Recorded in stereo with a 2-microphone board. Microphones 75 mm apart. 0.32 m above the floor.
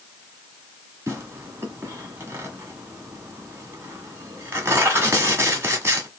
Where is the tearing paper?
35° right (ahead or behind), 1.5 m.